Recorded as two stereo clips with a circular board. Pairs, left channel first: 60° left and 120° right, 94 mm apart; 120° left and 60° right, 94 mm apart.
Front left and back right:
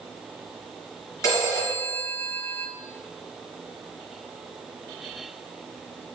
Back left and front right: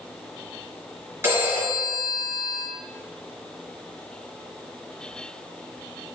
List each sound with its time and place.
1.2 s a phone ringing: 5° left, 3 m